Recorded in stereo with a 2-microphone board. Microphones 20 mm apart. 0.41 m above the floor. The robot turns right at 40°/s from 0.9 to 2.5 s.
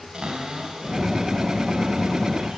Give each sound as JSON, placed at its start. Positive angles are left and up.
{"t": 0.1, "sound": "a cupboard door", "azimuth_deg": -125, "distance_m": 3.0}